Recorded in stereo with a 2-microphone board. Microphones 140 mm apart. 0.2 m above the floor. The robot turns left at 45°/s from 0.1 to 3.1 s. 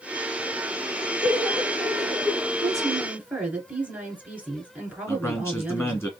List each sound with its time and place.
1.2 s laughter: 35° right, 1.4 m; by 2.5 s 95° right, 1.4 m
2.6 s a woman speaking: 30° right (ahead or behind), 2 m; by 6.1 s 10° right (ahead or behind), 2 m
5.1 s a man speaking: 20° left (ahead or behind), 1.8 m